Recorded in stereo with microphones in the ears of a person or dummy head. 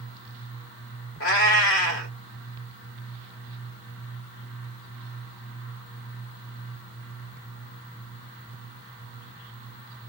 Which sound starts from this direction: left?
A cat meowing, at 1.2 s.